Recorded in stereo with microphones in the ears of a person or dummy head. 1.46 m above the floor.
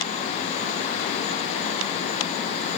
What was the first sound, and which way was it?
Only background noise.